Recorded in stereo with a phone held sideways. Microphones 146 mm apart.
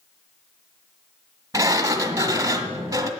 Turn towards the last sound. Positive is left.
turn(degrees=-20)  # may be behind; listen again after turning